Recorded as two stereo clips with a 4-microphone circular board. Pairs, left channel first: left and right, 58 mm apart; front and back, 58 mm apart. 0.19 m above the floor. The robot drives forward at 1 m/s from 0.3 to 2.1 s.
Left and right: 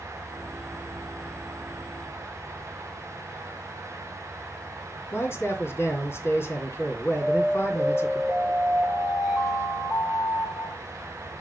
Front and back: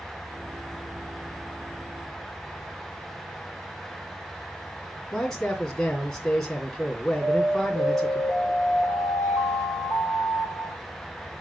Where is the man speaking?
85° left, 2.5 m.